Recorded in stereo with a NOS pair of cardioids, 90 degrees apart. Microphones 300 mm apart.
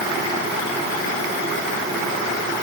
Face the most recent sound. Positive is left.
No sound to turn to.